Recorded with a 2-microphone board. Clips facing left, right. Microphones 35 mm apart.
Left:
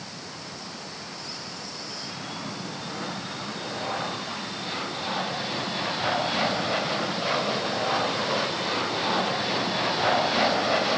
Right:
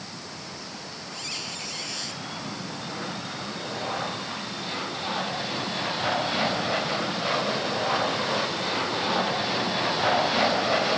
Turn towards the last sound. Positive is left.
turn(degrees=-85)